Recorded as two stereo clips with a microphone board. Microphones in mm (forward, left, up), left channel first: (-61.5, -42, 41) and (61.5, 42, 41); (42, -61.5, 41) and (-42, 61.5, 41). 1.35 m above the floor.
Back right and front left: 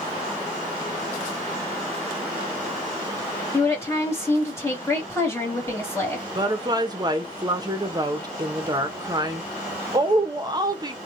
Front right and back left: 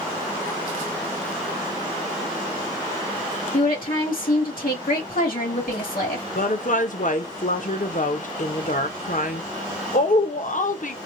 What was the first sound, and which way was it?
A woman speaking, 75° right.